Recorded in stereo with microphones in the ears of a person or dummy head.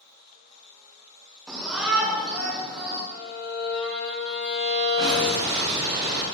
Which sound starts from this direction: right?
An explosion, at 5.0 s.